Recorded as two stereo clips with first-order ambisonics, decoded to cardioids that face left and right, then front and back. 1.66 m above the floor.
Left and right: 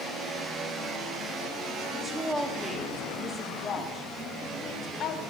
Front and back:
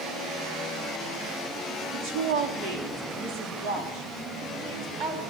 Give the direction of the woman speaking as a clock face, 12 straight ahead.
6 o'clock.